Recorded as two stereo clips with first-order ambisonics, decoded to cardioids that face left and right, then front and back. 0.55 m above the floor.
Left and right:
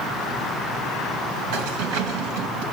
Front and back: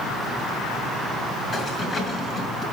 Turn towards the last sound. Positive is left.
turn(degrees=-75)